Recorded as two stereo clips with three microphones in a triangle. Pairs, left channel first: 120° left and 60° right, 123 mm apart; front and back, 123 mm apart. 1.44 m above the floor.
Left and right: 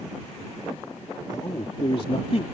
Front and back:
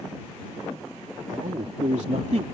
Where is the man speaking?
175° left; by 2.4 s 150° left.